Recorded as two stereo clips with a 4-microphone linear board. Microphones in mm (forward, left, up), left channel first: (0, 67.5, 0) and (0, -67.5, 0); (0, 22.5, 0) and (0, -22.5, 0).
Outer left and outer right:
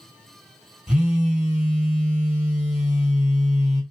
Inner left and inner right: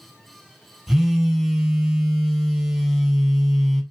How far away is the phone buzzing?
About 1.2 m.